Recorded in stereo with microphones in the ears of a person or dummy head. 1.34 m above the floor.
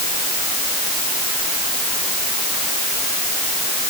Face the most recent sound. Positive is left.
No sound to turn to.